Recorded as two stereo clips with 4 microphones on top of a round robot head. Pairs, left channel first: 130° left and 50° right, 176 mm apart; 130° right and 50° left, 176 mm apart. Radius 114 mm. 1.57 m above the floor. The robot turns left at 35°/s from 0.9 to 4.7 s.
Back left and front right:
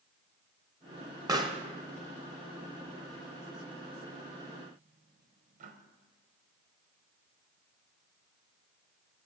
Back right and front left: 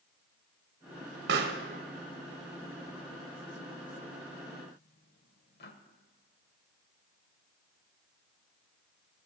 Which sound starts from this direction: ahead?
A pop, at 1.3 s.